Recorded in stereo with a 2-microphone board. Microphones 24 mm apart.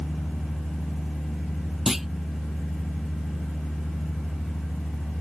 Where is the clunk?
10° right (ahead or behind).